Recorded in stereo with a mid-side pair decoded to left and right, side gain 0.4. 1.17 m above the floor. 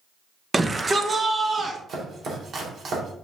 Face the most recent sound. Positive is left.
turn(degrees=-60)